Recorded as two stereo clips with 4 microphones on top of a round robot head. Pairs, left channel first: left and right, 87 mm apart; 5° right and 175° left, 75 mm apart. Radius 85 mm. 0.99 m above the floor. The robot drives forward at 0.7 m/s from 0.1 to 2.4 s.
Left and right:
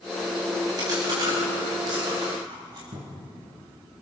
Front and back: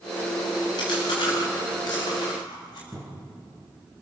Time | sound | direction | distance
0.8 | chewing | 40° right | 7.5 m
2.9 | a cupboard door | 105° right | 4 m